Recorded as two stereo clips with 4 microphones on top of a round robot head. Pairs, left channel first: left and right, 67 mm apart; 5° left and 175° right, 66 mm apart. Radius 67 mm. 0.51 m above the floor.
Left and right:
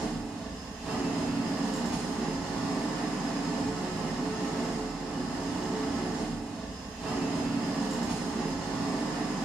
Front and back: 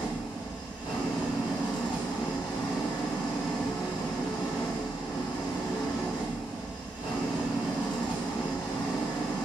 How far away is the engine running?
About 1.0 m.